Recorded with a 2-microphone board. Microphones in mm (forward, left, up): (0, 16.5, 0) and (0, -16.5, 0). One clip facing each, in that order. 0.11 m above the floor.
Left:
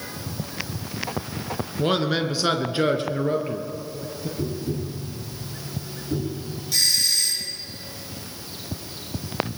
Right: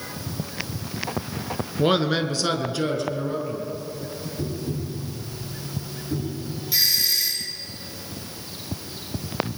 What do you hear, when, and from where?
1.8 s a man speaking: 15° right (ahead or behind), 1.3 m; by 4.3 s 60° left (ahead or behind), 2.5 m
4.4 s tapping: 15° left (ahead or behind), 7 m
6.7 s a doorbell: 10° right (ahead or behind), 2.5 m